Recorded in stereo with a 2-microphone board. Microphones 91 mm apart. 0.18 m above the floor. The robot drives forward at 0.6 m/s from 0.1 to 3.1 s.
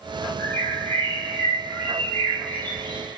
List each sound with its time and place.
0.4 s a bird: 20° left (ahead or behind), 5.5 m; by 3.2 s 15° left (ahead or behind), 7 m